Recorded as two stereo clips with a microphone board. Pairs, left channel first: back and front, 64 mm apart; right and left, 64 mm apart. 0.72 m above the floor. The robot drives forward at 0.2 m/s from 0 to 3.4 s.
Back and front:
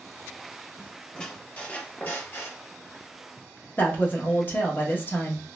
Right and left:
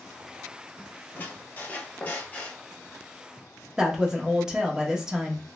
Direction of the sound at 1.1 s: 115° right.